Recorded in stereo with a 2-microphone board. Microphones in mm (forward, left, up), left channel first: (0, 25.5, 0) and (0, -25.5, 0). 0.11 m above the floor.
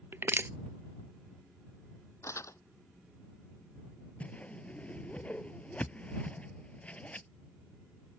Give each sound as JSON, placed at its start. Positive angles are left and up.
{"t": 0.1, "sound": "crushing", "side_deg": -50}
{"t": 2.2, "sound": "crumpling", "side_deg": 75}
{"t": 4.2, "sound": "a whoosh", "side_deg": 30}